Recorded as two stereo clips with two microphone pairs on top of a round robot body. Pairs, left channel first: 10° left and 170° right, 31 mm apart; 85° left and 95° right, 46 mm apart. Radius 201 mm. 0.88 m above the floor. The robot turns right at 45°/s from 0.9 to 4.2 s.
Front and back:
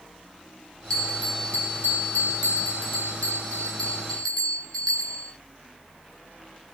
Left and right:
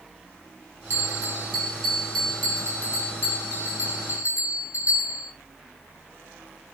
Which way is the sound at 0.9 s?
65° right.